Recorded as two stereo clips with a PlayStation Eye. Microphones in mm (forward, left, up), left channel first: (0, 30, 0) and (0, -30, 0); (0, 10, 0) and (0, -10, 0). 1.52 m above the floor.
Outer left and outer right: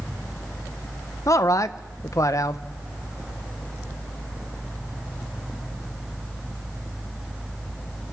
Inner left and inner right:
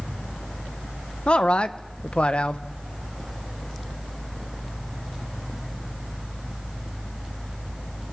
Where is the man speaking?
65° left (ahead or behind), 1.0 m.